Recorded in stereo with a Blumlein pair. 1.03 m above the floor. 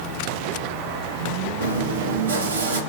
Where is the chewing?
70° right, 0.9 m.